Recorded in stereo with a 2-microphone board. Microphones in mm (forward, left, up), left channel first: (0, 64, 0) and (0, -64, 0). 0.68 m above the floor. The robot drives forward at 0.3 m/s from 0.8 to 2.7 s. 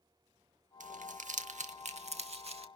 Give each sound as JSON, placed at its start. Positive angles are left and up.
{"t": 0.8, "sound": "crumpling", "side_deg": -80, "distance_m": 0.8}